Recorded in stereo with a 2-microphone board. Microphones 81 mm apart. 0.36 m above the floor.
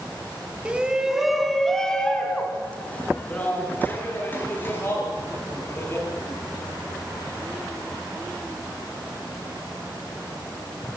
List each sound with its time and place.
0.7 s a shout: 15° right (ahead or behind), 3 m; by 6.0 s 30° left (ahead or behind), 10 m